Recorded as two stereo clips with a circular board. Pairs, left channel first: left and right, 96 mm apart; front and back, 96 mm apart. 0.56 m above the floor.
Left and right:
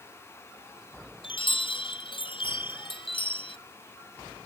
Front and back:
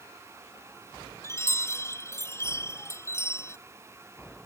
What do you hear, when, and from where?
1.2 s a chime: 65° left